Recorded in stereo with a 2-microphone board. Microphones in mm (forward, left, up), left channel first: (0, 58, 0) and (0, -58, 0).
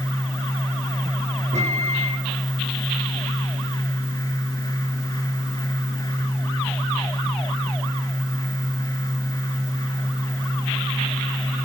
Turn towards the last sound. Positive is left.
turn(degrees=-75)  # may be behind; listen again after turning